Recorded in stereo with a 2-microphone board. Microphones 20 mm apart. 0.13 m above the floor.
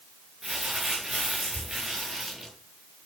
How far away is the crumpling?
About 9.5 m.